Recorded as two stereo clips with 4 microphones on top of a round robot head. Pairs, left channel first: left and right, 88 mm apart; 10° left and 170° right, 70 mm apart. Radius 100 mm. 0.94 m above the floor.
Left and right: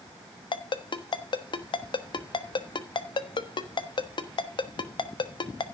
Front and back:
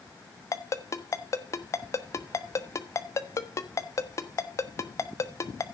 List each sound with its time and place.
0.5 s a ringtone: 55° left, 1.3 m